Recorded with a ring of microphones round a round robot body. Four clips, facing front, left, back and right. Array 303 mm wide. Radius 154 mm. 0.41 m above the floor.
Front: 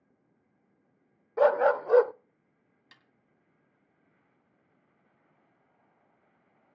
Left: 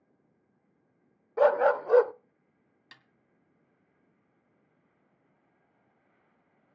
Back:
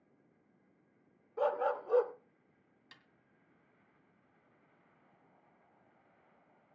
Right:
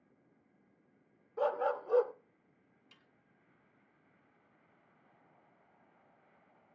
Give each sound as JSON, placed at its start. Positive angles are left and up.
{"t": 1.4, "sound": "a dog barking", "azimuth_deg": 45, "distance_m": 0.5}
{"t": 2.9, "sound": "a snare drum", "azimuth_deg": 90, "distance_m": 1.8}